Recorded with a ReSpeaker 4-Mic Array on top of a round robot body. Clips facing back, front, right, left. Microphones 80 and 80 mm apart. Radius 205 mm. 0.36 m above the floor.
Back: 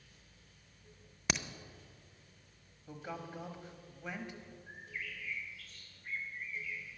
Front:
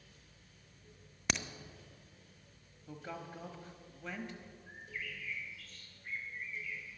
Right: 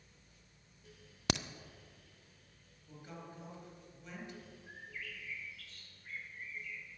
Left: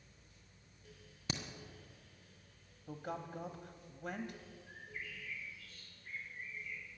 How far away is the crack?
About 0.6 m.